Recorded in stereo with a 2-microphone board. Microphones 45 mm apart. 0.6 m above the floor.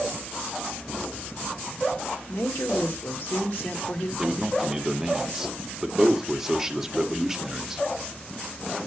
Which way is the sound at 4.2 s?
10° right (ahead or behind).